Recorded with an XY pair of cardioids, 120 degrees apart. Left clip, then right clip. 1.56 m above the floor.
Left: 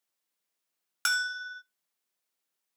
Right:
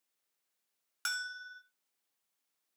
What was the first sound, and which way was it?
A bell, 45° left.